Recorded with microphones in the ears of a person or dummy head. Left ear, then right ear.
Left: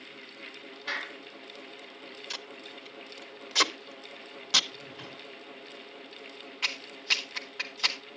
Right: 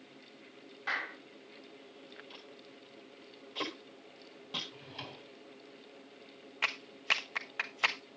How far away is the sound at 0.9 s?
About 8 m.